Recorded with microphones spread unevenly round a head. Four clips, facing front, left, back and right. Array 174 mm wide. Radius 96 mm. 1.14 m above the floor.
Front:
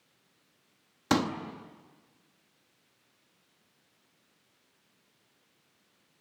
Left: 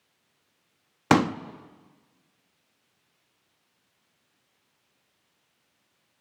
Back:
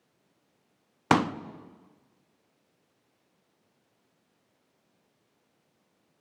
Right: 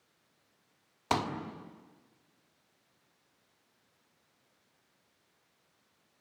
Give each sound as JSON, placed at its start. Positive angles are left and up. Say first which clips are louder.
{"t": 1.1, "sound": "a pop", "louder": "left 10 dB, back 4 dB", "azimuth_deg": 115, "distance_m": 0.8}